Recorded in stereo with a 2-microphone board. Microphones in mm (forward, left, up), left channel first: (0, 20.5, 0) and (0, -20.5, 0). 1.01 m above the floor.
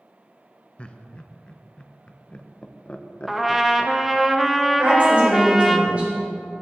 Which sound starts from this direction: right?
A woman speaking, at 4.8 s.